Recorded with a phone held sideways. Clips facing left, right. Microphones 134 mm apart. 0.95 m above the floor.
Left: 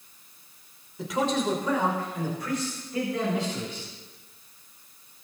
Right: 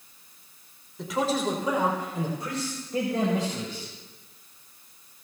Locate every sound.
1.0 s a man speaking: centre (ahead or behind), 3 m; by 3.9 s 50° right (ahead or behind), 5 m